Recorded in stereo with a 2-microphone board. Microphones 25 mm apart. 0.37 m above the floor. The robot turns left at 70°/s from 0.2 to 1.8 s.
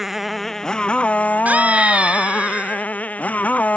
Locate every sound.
0.0 s a motorcycle: 170° right; by 3.8 s 75° left
1.4 s a scream: 75° right (ahead or behind); by 2.9 s 55° right (ahead or behind)